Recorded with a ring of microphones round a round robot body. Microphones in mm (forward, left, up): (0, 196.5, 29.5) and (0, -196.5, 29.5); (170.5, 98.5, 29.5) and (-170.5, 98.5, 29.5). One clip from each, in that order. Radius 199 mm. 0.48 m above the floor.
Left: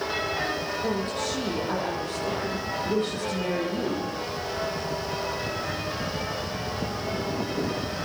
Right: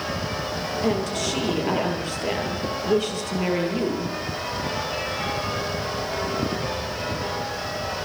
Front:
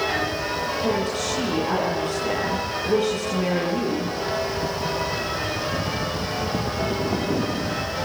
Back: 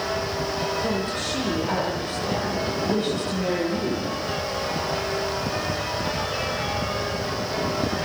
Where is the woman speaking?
80° right, 9.5 m.